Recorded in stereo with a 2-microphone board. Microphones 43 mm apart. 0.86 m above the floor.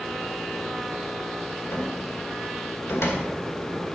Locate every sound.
1.7 s a cupboard door: 85° left, 2 m